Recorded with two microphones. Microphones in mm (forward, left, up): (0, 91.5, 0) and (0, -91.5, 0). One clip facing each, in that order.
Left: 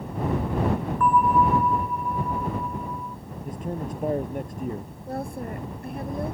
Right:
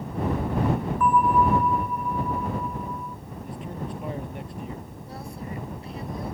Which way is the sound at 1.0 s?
5° right (ahead or behind).